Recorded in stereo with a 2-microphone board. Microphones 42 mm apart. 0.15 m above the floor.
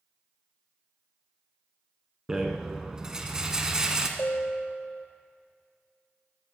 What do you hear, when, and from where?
2.3 s a rattle: 15° right (ahead or behind), 1.1 m
4.2 s a bell: 65° left (ahead or behind), 0.9 m